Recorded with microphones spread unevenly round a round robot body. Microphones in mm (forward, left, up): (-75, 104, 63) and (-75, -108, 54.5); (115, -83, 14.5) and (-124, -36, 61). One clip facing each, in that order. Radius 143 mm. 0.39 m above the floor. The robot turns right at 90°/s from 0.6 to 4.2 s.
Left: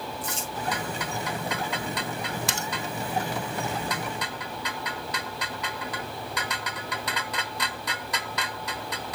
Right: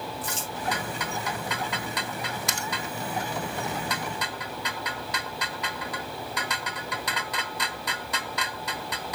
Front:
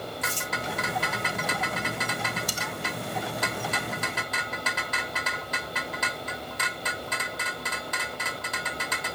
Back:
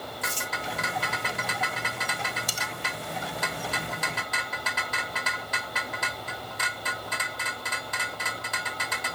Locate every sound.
0.2 s crumpling: 30° left, 4.5 m
2.5 s cutlery clinking: 150° left, 0.9 m; by 2.7 s 165° left, 0.9 m